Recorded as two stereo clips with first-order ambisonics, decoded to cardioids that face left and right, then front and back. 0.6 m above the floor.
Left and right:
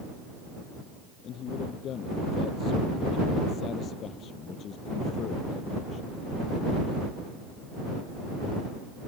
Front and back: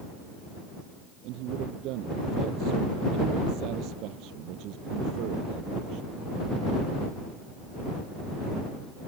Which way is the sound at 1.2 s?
145° left.